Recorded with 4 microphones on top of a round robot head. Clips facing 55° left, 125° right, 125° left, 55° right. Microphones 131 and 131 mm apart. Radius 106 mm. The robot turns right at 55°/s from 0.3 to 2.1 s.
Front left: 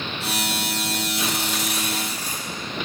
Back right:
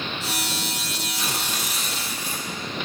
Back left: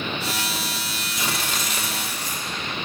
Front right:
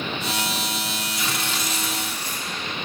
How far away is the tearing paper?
About 2.5 m.